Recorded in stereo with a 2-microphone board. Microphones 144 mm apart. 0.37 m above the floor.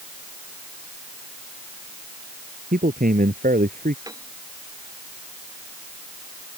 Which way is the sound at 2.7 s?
80° right.